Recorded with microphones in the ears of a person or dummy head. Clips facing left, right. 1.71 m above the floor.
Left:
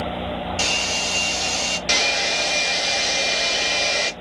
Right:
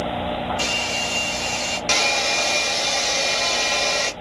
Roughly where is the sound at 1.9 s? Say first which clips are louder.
Right 2 dB; centre.